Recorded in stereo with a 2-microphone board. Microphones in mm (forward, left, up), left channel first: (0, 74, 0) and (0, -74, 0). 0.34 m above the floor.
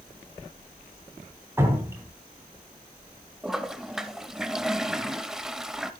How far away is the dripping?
About 3.5 m.